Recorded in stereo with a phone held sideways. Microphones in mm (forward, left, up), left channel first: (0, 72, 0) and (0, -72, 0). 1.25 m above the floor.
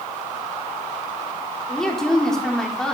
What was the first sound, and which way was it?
A woman speaking, 5° left (ahead or behind).